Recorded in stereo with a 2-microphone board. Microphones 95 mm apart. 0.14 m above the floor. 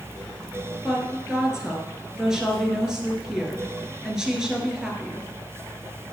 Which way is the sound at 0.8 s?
5° right (ahead or behind).